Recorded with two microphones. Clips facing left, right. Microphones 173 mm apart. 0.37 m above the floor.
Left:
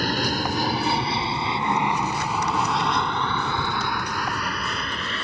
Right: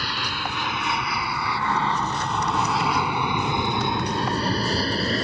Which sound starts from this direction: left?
An aircraft, at 0.0 s.